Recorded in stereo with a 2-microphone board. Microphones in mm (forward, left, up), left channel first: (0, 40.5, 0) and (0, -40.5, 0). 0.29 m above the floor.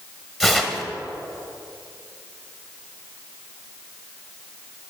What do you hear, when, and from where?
0.4 s tearing paper: 5° right (ahead or behind), 0.9 m